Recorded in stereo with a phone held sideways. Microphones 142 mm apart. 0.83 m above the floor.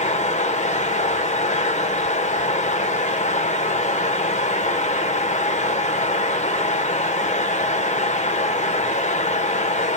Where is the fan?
55° left (ahead or behind), 1.1 m.